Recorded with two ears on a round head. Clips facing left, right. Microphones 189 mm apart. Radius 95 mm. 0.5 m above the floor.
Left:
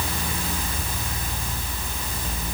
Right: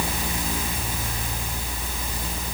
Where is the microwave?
I don't hear a microwave.